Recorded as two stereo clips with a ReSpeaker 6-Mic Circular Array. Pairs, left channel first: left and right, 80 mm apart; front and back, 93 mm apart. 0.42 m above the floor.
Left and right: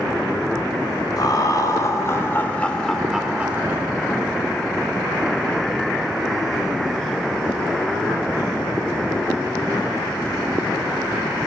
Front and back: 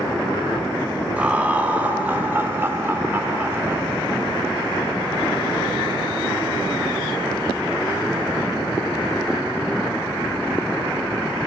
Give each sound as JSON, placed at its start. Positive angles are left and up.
{"t": 1.2, "sound": "laughter", "azimuth_deg": 105, "distance_m": 1.6}